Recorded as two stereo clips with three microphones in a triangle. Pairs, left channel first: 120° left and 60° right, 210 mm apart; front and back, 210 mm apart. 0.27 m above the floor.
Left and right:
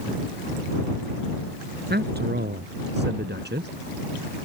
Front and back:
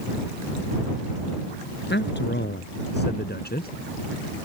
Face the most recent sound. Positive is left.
turn(degrees=-35)